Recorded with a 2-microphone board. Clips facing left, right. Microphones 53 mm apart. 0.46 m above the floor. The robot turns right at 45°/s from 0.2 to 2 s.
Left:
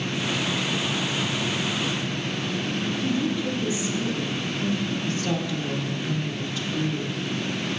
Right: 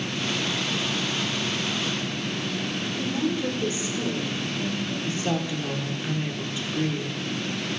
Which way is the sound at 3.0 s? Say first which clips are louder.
Right 1 dB; 40° right (ahead or behind).